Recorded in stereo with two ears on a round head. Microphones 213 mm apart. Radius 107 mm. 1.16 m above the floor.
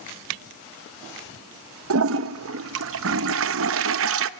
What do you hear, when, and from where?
1.9 s a toilet flushing: 55° right (ahead or behind), 0.8 m